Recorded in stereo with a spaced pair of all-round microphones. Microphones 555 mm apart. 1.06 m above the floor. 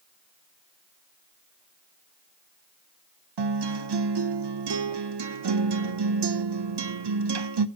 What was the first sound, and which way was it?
A guitar, 50° right (ahead or behind).